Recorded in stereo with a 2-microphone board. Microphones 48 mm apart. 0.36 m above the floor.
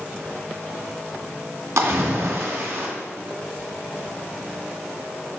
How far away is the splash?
About 2.5 m.